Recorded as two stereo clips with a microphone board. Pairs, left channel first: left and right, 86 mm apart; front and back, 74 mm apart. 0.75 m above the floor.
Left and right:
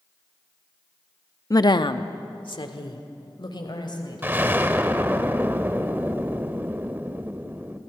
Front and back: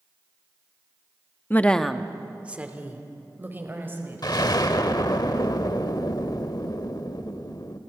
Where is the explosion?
25° right, 0.9 m.